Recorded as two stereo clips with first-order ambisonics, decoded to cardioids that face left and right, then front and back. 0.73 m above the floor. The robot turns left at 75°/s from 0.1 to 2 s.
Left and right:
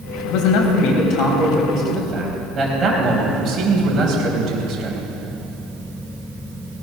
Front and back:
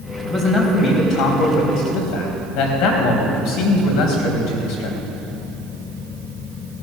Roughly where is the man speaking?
Behind left.